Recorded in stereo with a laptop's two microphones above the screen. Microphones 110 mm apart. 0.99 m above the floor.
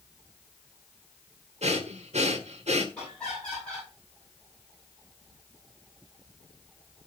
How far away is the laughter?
About 9 m.